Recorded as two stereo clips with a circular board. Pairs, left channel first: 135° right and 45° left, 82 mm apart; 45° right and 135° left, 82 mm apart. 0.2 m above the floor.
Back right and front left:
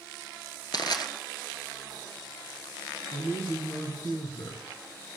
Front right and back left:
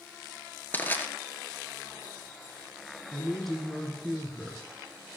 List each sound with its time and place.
0.7 s crushing: 110° right, 1.3 m
3.1 s a woman speaking: 135° right, 3 m